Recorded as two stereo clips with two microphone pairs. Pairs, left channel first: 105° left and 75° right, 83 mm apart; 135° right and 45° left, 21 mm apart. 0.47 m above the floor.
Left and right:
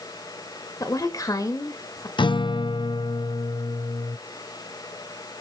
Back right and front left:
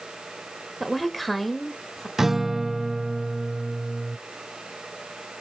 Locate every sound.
0.8 s a woman speaking: 135° left, 2.0 m
2.2 s a guitar: 115° left, 0.5 m